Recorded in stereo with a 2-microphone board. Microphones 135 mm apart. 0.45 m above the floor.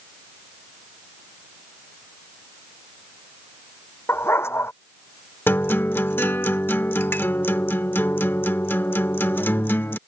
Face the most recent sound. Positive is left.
turn(degrees=15)  # may be behind; listen again after turning